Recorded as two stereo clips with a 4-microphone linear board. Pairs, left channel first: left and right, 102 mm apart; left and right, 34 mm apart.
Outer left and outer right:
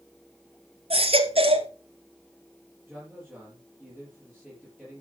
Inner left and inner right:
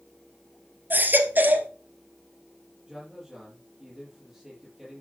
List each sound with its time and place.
0.9 s a baby crying: 70° right (ahead or behind), 1.9 m
2.9 s a man speaking: 5° left (ahead or behind), 5 m